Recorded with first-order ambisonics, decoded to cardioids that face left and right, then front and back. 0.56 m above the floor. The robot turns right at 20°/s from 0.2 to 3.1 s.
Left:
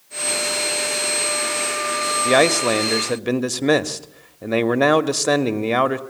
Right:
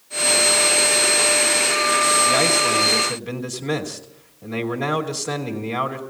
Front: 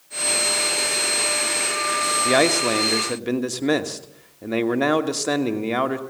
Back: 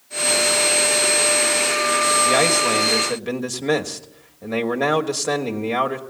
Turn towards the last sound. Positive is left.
turn(degrees=85)